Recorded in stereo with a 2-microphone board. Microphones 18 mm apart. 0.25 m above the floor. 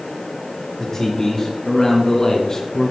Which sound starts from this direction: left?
A man speaking, at 0.8 s.